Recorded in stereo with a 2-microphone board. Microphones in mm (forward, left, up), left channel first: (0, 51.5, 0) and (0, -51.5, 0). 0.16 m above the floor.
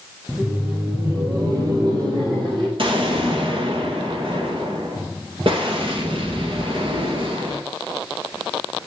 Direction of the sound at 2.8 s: 55° right (ahead or behind).